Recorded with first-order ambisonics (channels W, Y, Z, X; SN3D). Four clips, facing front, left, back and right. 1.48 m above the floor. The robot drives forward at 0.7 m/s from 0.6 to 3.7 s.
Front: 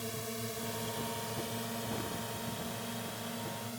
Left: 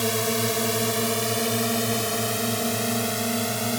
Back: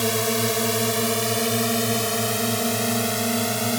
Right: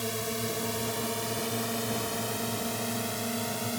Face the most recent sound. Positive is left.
turn(degrees=155)